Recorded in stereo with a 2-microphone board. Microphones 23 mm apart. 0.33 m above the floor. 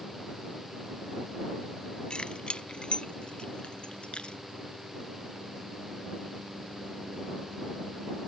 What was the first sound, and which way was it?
Keys jangling, 45° left (ahead or behind).